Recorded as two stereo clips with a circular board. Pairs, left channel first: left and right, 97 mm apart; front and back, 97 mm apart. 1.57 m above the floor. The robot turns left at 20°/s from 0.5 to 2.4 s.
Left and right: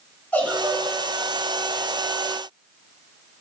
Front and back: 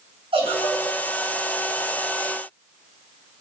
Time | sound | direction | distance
0.3 | a giggle | 165° left | 4 m